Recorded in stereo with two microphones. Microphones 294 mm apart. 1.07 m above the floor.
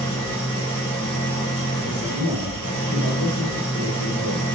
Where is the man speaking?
60° left (ahead or behind), 6 m.